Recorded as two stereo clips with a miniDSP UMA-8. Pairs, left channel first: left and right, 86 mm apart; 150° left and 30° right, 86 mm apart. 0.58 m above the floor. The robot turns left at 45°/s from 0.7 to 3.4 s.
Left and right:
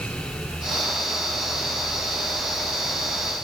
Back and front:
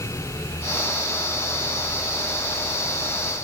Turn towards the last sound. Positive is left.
No sound to turn to.